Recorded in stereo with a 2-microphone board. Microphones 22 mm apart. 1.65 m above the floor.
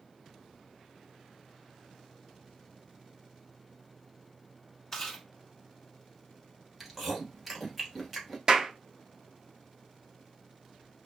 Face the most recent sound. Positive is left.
turn(degrees=-35)  # may be behind; listen again after turning